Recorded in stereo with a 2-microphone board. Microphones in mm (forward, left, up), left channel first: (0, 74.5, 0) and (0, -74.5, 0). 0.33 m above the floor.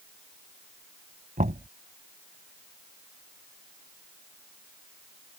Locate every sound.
1.4 s knocking: 60° right (ahead or behind)